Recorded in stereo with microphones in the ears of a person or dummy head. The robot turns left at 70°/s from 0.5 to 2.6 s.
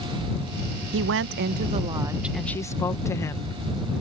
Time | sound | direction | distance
0.9 | a woman speaking | 85° right | ?